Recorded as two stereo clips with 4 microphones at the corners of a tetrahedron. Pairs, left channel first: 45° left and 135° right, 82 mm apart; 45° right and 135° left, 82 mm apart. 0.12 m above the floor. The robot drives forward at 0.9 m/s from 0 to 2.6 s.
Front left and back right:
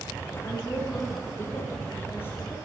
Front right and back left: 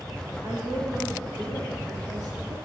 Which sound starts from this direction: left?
A woman speaking, at 0.4 s.